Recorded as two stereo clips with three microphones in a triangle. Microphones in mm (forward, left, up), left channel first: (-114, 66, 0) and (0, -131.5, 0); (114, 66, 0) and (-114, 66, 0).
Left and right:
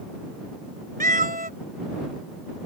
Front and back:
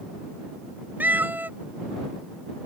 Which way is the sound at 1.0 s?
100° right.